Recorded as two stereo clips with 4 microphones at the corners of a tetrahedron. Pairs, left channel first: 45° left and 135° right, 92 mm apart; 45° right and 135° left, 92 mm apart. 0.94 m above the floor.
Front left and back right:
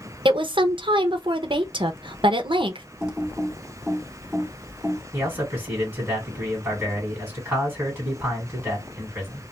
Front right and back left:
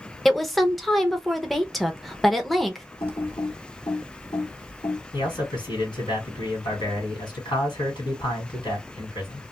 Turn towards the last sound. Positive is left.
turn(degrees=-60)